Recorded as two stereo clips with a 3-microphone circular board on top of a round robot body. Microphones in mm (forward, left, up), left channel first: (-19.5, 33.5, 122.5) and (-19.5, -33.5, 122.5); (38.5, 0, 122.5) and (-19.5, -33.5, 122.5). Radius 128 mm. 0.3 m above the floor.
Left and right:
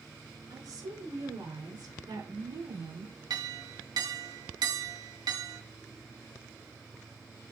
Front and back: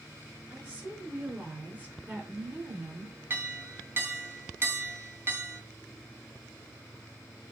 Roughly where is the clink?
Right.